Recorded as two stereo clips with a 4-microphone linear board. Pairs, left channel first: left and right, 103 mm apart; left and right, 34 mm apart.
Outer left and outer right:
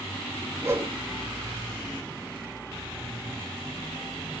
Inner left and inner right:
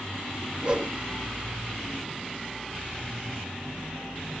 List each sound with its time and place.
0.6 s a whoosh: 30° right (ahead or behind), 4.5 m